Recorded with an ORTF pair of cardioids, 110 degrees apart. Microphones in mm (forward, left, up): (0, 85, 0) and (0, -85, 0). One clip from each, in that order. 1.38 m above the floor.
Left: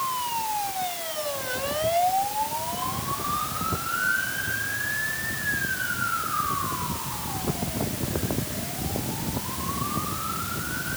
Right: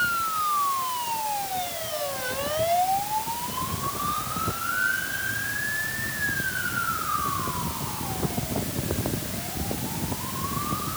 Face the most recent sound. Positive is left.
No sound to turn to.